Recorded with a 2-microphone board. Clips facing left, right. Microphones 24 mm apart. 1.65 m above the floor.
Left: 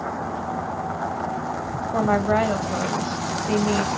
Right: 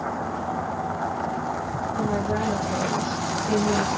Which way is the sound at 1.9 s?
80° left.